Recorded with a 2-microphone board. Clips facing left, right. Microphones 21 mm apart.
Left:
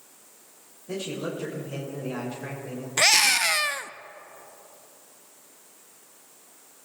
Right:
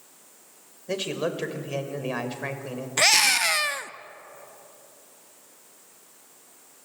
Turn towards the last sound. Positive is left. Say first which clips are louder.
# even
turn(degrees=-5)  # may be behind; listen again after turning